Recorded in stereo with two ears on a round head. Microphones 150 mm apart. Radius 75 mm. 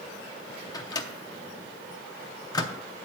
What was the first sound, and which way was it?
A microwave, 25° left (ahead or behind).